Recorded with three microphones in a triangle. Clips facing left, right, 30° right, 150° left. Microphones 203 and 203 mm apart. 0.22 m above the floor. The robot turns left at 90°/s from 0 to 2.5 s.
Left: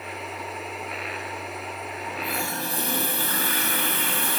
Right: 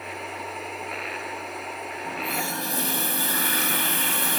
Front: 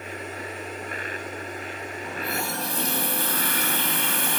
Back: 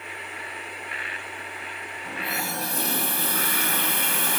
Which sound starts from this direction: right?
A running tap, at 2.0 s.